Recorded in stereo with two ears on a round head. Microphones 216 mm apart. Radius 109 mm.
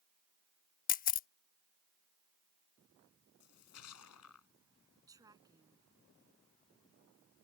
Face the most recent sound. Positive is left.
turn(degrees=-15)  # may be behind; listen again after turning